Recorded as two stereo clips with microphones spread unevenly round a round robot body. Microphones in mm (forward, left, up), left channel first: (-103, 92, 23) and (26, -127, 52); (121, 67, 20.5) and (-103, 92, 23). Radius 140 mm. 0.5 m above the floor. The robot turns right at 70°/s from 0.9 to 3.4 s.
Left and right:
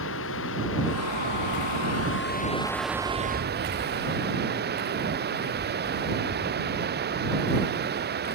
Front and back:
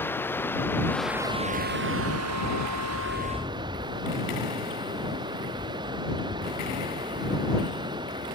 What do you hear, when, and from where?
0.0 s running water: 75° left; by 8.3 s 110° right